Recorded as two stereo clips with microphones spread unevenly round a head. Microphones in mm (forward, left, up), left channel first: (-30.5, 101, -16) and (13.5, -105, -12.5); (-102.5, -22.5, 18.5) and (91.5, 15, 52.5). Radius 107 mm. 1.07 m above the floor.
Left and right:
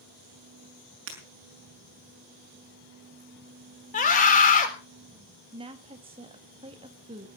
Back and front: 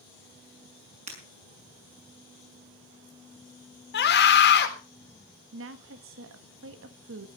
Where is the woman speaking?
10° right, 1.9 m.